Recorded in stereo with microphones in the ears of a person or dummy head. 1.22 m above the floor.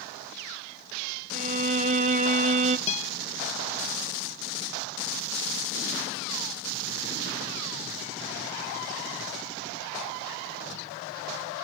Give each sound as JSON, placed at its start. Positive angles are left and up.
{"t": 1.3, "sound": "a violin", "side_deg": -40, "distance_m": 1.0}
{"t": 2.9, "sound": "a guitar", "side_deg": 35, "distance_m": 0.8}